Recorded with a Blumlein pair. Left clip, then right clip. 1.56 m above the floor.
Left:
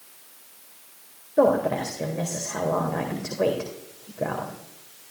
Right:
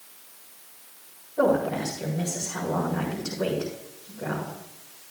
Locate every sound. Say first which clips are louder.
1.4 s a woman speaking: left 3 dB; 30° left, 2 m